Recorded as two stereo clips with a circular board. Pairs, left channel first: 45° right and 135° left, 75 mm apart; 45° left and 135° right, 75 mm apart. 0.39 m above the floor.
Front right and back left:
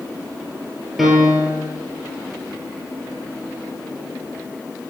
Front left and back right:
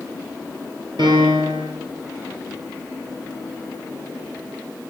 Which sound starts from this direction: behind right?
A piano, at 1.0 s.